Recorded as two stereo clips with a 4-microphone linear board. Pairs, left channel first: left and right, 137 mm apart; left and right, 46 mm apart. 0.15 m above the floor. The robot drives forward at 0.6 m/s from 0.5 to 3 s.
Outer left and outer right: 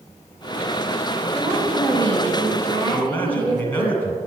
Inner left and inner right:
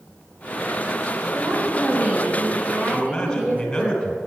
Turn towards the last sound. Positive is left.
turn(degrees=15)  # may be behind; listen again after turning